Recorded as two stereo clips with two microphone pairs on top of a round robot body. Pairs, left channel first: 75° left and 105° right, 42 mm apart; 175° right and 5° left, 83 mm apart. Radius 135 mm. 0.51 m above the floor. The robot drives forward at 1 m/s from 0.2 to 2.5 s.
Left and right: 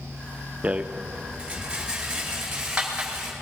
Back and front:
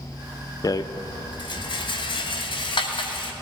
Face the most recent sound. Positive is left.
turn(degrees=-175)